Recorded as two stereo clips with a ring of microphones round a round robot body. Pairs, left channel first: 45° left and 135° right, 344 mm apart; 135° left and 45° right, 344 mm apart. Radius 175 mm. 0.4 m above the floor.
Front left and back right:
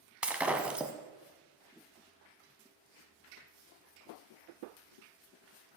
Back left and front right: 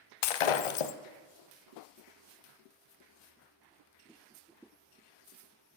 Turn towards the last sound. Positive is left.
turn(degrees=140)